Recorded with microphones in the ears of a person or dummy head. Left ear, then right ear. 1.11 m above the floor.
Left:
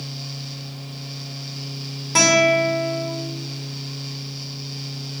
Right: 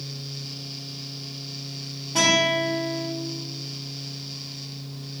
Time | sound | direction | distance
2.1 | a guitar | 60° left (ahead or behind) | 1.0 m